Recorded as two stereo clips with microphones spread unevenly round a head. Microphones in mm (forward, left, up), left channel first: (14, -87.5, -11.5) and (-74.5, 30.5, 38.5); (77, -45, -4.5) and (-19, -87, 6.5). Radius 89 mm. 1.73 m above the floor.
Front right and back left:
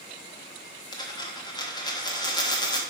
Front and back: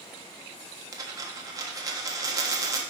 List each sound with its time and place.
0.9 s a dropped coin: 125° right, 1.4 m